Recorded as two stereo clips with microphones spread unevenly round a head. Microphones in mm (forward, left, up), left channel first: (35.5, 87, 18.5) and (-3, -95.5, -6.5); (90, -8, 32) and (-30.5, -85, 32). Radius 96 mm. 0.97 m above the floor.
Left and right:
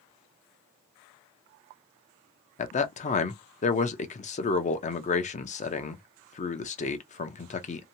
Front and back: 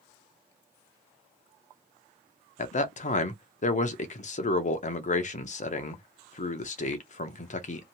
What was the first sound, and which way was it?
A man speaking, 30° left.